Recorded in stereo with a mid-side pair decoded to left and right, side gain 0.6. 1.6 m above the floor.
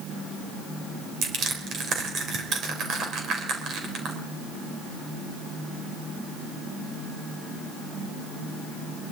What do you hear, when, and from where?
1.2 s crushing: 55° right, 4 m